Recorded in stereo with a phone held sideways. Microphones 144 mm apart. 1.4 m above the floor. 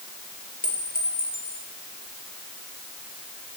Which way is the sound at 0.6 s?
70° left (ahead or behind).